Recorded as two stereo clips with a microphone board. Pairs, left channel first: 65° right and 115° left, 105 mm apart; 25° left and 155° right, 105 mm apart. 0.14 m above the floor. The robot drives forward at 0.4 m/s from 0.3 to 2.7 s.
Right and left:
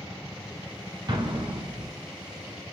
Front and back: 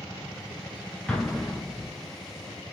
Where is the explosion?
100° left, 0.8 m; by 1.9 s 125° left, 0.9 m.